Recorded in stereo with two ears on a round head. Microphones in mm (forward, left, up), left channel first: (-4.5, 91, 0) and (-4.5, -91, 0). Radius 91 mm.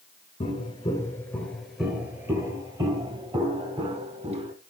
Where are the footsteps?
30° left (ahead or behind), 1.7 m; by 4.5 s 30° right (ahead or behind), 3.5 m.